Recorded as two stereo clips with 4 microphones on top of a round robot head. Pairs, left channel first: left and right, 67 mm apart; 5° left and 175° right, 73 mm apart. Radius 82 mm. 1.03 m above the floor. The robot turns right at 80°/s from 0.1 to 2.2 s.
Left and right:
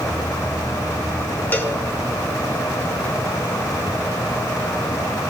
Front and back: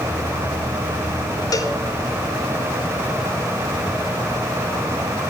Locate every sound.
1.5 s a cowbell: 30° left, 1.9 m; by 1.8 s 50° left, 1.9 m